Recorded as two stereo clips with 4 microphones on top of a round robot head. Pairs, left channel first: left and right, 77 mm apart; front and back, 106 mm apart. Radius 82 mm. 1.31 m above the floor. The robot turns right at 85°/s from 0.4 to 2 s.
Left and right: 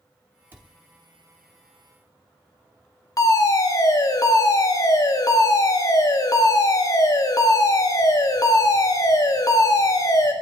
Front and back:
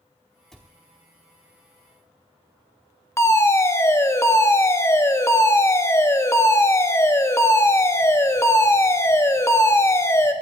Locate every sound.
0.5 s a cupboard door: 85° right, 0.9 m; by 0.7 s 65° right, 0.9 m
3.2 s a fire alarm: 60° left, 1.7 m